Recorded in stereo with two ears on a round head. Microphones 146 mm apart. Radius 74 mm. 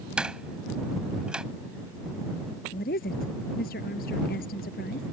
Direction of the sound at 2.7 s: 55° left (ahead or behind).